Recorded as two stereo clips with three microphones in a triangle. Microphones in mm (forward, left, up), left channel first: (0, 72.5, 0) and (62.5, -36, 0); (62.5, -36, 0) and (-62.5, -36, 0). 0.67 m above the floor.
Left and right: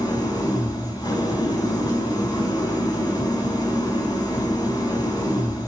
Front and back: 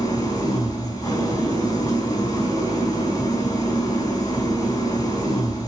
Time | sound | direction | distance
0.0 | an engine running | 60° left | 4.5 m